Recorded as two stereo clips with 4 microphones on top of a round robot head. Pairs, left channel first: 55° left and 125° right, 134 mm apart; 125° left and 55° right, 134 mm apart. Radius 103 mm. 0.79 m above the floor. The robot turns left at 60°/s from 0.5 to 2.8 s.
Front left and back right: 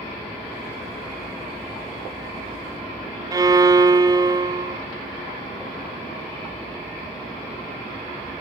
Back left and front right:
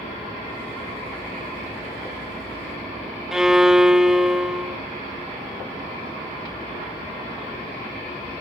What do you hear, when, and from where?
3.3 s a violin: 135° right, 0.6 m